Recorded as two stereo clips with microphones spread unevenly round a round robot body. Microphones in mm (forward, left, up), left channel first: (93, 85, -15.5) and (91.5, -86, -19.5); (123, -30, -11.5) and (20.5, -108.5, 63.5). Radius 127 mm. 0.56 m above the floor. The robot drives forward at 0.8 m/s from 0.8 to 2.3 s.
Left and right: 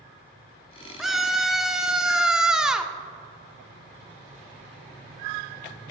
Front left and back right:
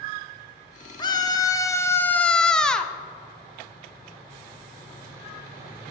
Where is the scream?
Straight ahead, 1.7 m; by 2.9 s 5° right, 0.8 m.